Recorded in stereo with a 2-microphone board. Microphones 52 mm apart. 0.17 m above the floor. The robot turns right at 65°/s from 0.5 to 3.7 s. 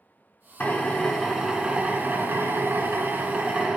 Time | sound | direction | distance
0.6 | a drill | 140° left | 1.6 m